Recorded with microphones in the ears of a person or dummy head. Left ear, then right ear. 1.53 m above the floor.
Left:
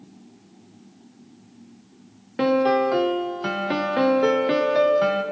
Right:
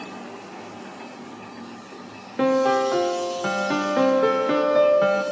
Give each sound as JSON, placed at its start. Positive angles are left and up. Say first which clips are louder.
{"t": 2.4, "sound": "a piano", "louder": "even", "side_deg": 0, "distance_m": 0.6}